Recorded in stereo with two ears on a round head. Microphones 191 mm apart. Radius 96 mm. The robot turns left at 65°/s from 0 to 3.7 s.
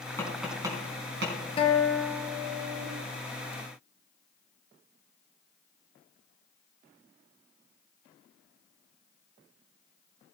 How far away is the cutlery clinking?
I don't hear cutlery clinking.